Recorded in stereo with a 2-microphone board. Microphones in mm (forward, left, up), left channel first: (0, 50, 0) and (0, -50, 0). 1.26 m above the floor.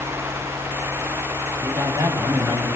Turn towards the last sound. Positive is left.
turn(degrees=-50)  # may be behind; listen again after turning